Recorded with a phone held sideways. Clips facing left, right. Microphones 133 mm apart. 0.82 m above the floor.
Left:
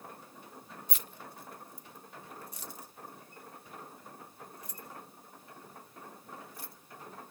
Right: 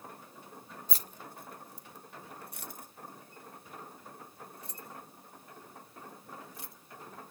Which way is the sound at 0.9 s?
35° right (ahead or behind).